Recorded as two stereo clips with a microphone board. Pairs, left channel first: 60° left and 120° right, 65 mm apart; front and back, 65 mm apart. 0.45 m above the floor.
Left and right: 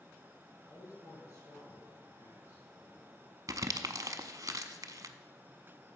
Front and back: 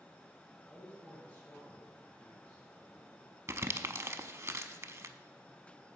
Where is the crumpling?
140° right, 0.6 m.